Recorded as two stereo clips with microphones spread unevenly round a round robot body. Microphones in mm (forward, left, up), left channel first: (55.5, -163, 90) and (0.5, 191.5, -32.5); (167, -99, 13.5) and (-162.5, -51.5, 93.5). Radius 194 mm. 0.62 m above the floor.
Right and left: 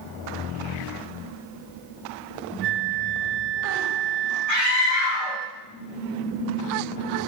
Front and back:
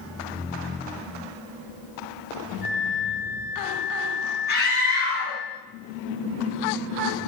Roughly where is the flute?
Left.